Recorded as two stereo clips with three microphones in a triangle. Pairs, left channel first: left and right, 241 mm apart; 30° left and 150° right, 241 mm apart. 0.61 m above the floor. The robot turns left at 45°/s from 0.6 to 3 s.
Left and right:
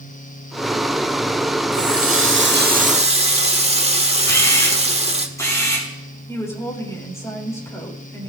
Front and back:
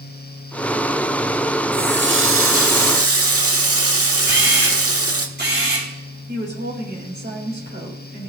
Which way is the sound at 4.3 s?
165° left.